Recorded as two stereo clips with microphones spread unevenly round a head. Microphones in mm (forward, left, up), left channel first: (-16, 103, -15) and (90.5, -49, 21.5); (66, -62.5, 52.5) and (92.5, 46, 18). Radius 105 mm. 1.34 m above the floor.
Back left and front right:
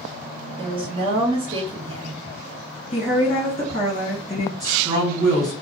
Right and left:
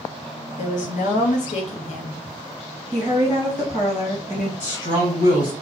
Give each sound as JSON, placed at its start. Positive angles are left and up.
{"t": 0.6, "sound": "a woman speaking", "azimuth_deg": -125, "distance_m": 0.8}
{"t": 2.9, "sound": "a woman speaking", "azimuth_deg": -175, "distance_m": 1.6}
{"t": 4.6, "sound": "a woman speaking", "azimuth_deg": -130, "distance_m": 1.9}